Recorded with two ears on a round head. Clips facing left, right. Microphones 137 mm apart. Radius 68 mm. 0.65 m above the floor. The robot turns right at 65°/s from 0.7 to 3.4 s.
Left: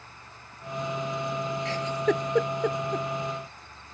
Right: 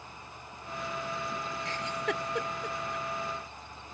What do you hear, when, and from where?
1.6 s a giggle: 60° left (ahead or behind); by 3.1 s 30° left (ahead or behind)